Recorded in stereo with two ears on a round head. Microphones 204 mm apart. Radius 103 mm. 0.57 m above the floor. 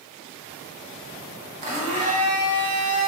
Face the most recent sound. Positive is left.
turn(degrees=-30)  # may be behind; listen again after turning